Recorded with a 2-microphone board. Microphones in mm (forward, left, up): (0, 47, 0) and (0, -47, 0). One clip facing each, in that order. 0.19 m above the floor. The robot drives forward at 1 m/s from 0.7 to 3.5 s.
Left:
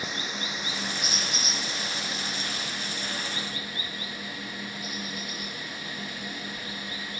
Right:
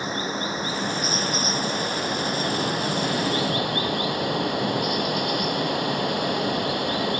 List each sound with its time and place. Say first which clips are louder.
0.0 s running water: right 7 dB; 40° right (ahead or behind); by 7.2 s 70° right (ahead or behind)